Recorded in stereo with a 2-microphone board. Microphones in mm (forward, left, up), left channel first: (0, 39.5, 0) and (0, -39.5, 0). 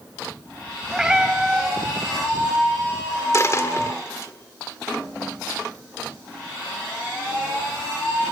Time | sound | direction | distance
0.9 | a cat meowing | 10° right (ahead or behind) | 2 m
3.3 | a dropped coin | 40° left (ahead or behind) | 1.6 m